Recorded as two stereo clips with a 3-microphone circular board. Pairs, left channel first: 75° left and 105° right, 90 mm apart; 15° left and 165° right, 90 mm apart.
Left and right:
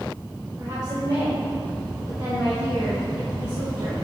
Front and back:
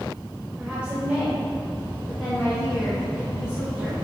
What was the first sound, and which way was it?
A woman speaking, 100° right.